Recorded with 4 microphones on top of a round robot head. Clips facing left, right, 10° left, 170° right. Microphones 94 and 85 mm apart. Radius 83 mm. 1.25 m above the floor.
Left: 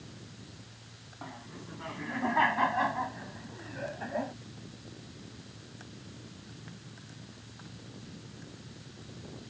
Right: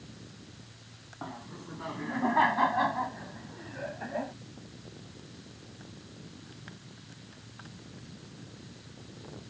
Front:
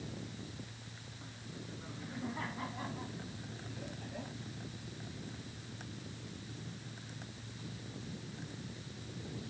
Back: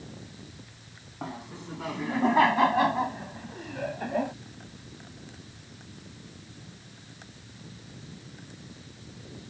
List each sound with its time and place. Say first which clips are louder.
1.2 s laughter: right 3 dB, back 12 dB; 160° right; by 4.3 s straight behind